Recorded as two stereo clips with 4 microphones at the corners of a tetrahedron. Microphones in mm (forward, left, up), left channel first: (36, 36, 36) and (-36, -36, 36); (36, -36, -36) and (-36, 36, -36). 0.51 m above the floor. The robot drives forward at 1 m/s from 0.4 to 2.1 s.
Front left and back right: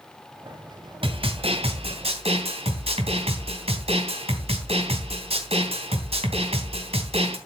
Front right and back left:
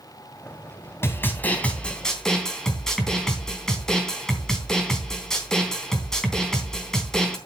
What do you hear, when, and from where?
1.0 s a snare drum: 110° right, 2.5 m; by 7.4 s 130° right, 3 m